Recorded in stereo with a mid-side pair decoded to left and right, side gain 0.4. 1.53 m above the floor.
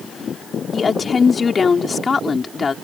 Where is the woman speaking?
40° left.